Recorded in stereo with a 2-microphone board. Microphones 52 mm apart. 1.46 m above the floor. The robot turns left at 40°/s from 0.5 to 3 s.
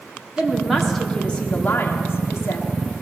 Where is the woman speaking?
170° right, 3.5 m; by 2.8 s 100° left, 3.5 m.